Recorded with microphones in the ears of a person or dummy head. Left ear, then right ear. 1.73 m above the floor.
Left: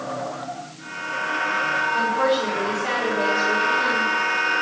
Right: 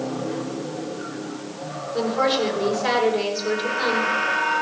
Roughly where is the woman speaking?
Right.